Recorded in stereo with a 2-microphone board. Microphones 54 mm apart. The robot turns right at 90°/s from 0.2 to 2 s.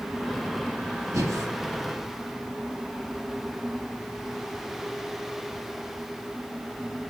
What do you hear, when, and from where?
1.1 s breathing: 85° right, 3 m; by 1.5 s 60° right (ahead or behind), 3 m